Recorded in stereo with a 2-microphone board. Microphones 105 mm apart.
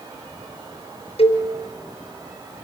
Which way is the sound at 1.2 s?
65° left (ahead or behind).